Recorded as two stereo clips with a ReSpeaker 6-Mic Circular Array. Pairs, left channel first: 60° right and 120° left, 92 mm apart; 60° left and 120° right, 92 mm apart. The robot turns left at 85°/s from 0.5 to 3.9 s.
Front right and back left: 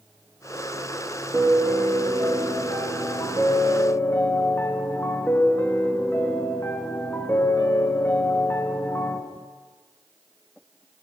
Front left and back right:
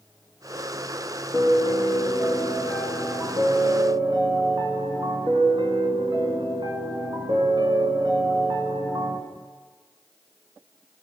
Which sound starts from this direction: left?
A piano, at 1.3 s.